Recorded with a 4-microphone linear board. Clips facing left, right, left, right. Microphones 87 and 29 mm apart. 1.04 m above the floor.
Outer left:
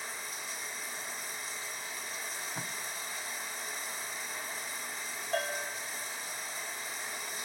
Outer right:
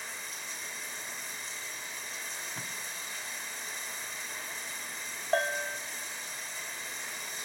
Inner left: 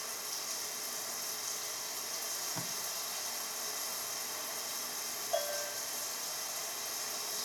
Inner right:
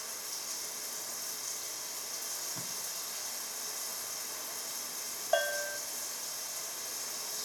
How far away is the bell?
About 0.8 m.